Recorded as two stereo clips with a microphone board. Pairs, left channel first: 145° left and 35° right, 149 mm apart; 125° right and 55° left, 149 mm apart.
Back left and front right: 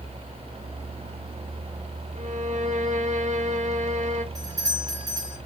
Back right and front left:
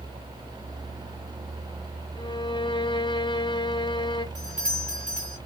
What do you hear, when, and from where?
2.1 s a violin: 70° right, 1.2 m
4.3 s a doorbell: 30° left, 4 m